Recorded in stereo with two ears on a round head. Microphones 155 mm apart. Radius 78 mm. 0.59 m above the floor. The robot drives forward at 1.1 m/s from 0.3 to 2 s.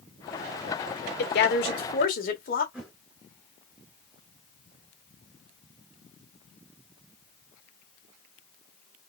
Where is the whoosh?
5° right (ahead or behind), 2.5 m.